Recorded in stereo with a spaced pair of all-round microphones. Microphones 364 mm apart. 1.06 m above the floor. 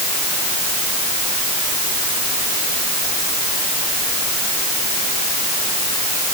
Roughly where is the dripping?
No dripping in this recording.